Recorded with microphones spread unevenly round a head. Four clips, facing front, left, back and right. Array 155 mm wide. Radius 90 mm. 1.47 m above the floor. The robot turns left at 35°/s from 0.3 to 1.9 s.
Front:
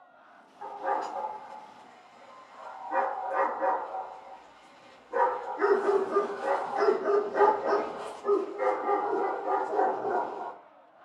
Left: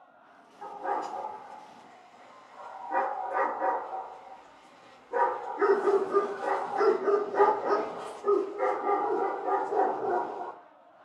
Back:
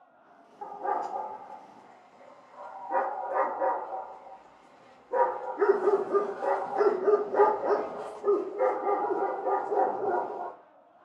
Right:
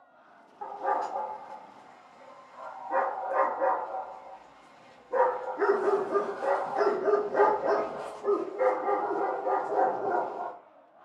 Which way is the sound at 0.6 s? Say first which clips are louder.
Right 3 dB, even; 115° right.